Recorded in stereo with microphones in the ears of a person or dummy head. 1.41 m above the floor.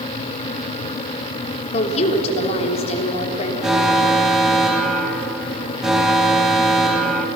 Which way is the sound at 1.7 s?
40° left (ahead or behind).